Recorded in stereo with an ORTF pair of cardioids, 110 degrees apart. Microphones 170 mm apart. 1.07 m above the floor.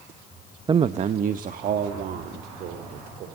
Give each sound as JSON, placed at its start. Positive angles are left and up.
{"t": 0.7, "sound": "a man speaking", "azimuth_deg": -25, "distance_m": 0.7}